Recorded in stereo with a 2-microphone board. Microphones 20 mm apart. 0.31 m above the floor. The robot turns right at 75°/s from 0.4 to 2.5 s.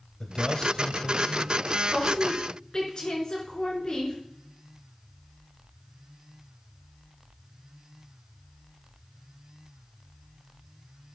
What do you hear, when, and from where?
0.2 s a man speaking: 55° left, 1.8 m; by 1.5 s 135° left, 1.8 m
1.9 s a woman speaking: 5° right, 4.5 m; by 4.2 s 40° left, 4.5 m